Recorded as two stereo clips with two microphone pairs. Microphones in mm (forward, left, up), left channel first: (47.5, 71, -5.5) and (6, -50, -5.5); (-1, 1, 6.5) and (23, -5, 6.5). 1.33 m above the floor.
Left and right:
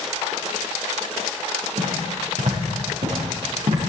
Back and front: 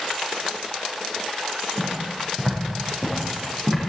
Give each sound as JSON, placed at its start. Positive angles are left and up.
{"t": 1.8, "sound": "footsteps", "azimuth_deg": -85, "distance_m": 6.0}